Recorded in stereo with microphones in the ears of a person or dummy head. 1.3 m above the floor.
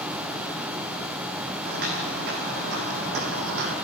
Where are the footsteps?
55° right (ahead or behind), 3.5 m.